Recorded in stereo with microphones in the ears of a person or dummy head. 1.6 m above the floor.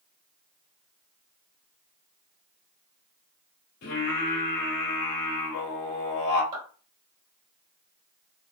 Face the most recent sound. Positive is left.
turn(degrees=-40)  # may be behind; listen again after turning